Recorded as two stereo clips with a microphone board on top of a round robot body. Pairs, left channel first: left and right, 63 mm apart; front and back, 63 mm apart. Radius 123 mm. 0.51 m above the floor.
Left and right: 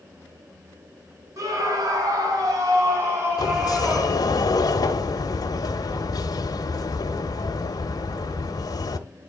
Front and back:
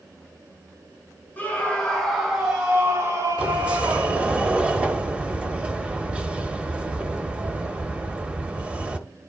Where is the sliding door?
110° left, 0.9 m.